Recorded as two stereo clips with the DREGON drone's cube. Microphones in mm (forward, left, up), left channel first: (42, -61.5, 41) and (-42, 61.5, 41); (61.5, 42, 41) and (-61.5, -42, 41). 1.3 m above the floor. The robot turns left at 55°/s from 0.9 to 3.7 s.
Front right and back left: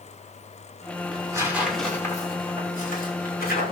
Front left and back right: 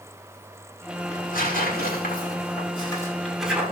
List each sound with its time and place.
1.1 s tearing paper: 70° left, 5 m; by 3.7 s 75° right, 5 m